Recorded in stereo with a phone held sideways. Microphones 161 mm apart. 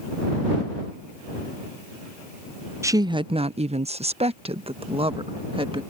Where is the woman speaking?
20° right (ahead or behind); by 5.8 s 35° right (ahead or behind).